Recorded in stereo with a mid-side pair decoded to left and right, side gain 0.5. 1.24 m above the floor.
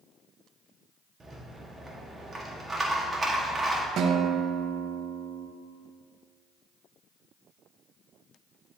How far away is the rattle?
About 1.4 m.